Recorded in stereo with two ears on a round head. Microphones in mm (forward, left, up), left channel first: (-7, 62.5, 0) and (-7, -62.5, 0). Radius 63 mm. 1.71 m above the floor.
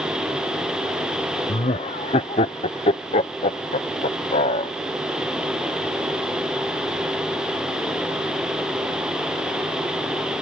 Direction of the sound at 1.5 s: 40° left (ahead or behind).